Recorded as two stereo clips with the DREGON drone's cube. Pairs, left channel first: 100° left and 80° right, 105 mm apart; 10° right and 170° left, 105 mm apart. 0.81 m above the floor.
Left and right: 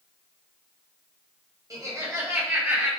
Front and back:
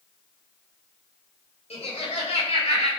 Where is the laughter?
20° right, 4.5 m; by 2.9 s 10° right, 5 m.